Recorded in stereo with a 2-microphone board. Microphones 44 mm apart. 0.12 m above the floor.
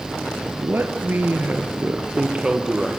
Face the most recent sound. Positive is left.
turn(degrees=-10)  # may be behind; listen again after turning